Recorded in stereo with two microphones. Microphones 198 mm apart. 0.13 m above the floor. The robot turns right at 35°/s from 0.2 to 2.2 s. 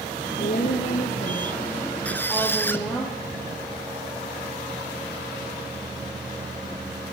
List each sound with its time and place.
0.4 s a woman speaking: 95° left, 4 m; by 3.0 s 160° left, 4 m
2.0 s a squeak: 5° left (ahead or behind), 1.0 m; by 2.9 s 10° left (ahead or behind), 1.0 m